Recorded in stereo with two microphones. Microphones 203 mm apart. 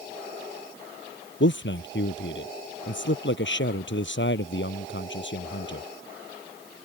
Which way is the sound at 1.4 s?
65° left (ahead or behind).